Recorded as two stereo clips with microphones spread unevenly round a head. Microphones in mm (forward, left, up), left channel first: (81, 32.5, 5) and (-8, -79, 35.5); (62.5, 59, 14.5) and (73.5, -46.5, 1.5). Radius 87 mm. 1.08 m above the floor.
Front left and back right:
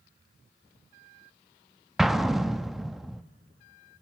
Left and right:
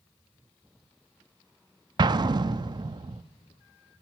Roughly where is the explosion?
Ahead right.